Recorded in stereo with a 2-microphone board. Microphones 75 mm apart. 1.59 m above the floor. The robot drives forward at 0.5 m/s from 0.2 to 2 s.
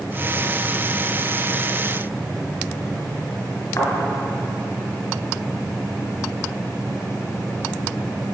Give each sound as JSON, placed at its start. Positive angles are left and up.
{"t": 3.8, "sound": "a thud", "side_deg": 45, "distance_m": 2.0}